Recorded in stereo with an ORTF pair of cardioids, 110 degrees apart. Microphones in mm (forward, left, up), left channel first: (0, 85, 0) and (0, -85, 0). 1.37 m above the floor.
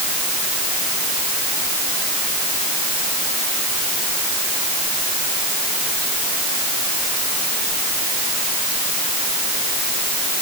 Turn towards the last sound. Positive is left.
No sound to turn to.